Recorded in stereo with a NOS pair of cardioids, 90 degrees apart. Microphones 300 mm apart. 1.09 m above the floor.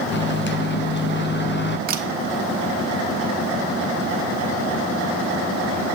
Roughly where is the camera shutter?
Ahead right.